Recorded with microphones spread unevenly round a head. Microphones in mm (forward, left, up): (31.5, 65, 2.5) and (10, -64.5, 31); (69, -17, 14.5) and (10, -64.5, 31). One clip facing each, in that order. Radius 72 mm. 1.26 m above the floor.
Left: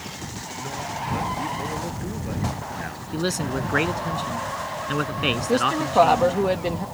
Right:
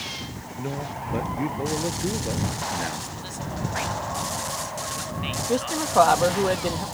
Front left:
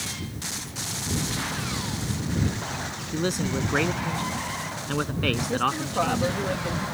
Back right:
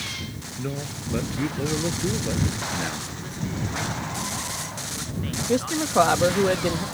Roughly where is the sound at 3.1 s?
Left.